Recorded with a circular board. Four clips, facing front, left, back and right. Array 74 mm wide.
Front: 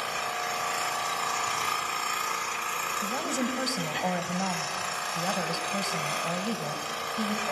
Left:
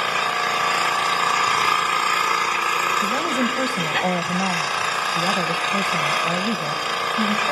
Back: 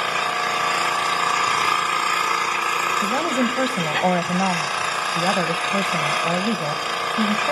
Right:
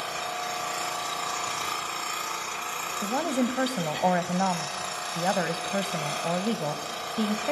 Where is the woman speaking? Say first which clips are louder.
Left 5 dB, back 9 dB; 165° right, 1.1 m.